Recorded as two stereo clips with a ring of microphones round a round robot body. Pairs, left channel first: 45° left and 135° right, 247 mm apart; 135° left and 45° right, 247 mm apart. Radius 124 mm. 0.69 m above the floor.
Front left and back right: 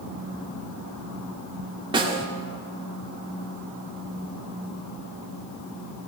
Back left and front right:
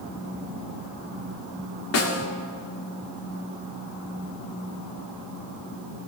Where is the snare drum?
155° left, 2 m.